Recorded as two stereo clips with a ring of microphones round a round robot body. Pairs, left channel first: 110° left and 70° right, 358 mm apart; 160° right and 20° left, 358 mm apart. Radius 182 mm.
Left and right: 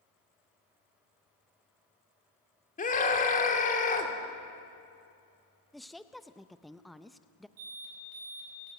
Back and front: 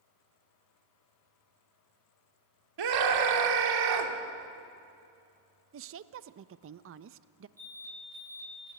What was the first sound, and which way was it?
A scream, 45° left.